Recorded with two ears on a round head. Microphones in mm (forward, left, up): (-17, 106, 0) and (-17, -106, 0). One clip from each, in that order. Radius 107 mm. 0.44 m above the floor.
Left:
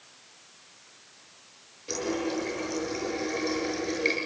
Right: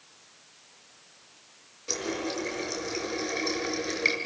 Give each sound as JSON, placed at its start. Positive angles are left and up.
{"t": 1.9, "sound": "a running tap", "side_deg": -25, "distance_m": 5.5}